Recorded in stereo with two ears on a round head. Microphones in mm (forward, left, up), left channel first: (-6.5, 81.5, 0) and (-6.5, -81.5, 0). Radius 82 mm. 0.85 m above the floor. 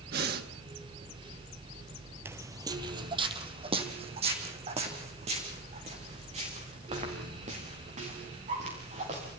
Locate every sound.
0.1 s breathing: 55° right (ahead or behind), 1.7 m
2.2 s footsteps: 15° right (ahead or behind), 1.3 m; by 9.3 s 40° right (ahead or behind), 8.5 m